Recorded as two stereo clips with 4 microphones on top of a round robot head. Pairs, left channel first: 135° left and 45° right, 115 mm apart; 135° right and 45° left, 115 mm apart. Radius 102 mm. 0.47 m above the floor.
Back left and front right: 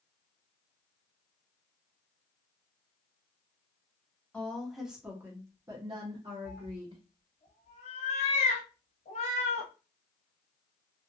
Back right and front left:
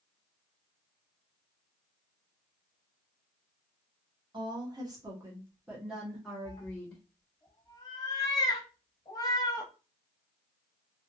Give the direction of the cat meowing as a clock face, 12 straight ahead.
6 o'clock.